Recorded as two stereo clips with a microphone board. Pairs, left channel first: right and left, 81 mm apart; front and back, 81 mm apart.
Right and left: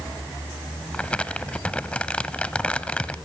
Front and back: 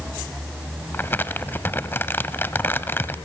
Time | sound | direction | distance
0.9 | crumpling | 30° right | 1.0 m